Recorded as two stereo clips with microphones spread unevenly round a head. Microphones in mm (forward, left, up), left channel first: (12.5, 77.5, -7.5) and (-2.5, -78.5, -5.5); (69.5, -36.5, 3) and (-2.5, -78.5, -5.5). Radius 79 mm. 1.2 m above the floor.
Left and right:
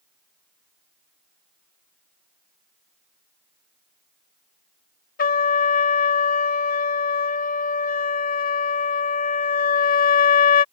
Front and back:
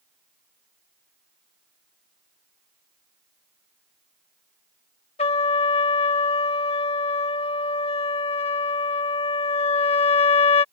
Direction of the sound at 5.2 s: 45° left.